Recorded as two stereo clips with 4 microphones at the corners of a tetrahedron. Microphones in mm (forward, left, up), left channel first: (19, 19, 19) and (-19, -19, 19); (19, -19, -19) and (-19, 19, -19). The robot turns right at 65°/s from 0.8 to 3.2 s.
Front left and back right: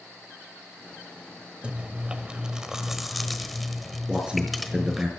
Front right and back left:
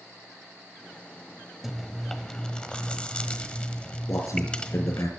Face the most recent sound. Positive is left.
turn(degrees=-60)